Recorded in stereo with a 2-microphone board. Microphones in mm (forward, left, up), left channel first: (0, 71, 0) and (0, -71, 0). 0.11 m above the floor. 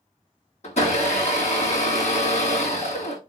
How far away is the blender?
About 1.4 m.